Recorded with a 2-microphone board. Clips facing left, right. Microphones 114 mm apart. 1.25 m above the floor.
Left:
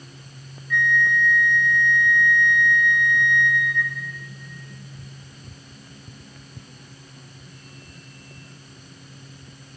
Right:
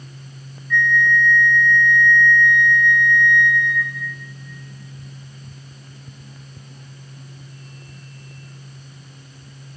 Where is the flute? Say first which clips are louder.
Right 3 dB; 10° left (ahead or behind), 0.9 m.